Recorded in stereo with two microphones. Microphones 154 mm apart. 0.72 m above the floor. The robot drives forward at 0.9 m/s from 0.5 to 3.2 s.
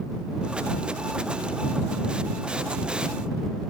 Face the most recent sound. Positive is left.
No sound to turn to.